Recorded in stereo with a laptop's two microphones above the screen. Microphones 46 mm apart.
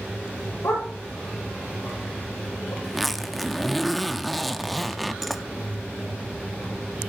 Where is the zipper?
5° left (ahead or behind), 0.8 m.